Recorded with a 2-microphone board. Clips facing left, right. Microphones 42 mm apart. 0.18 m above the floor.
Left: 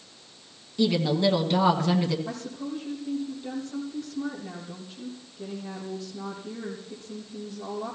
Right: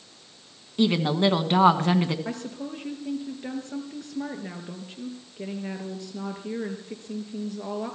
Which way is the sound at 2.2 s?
70° right (ahead or behind).